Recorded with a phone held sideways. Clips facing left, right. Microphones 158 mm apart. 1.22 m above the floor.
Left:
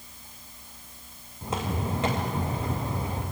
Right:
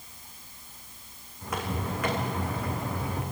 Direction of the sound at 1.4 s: 25° left (ahead or behind).